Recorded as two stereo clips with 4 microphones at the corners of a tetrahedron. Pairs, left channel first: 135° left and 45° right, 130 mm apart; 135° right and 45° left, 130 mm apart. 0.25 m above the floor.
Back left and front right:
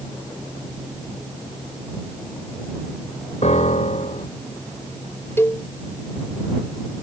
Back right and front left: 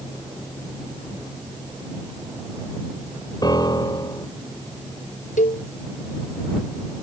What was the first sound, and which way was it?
A piano, 165° left.